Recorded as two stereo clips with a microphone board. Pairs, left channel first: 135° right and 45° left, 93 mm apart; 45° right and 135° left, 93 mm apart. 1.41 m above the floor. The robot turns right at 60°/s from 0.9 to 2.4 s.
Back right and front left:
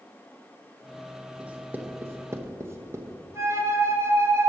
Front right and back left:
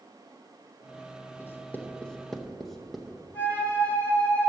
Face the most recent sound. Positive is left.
turn(degrees=15)